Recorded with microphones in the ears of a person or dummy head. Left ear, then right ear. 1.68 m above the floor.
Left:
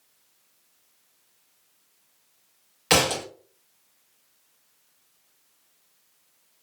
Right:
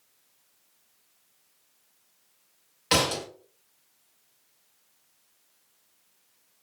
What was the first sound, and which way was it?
A thud, 45° left (ahead or behind).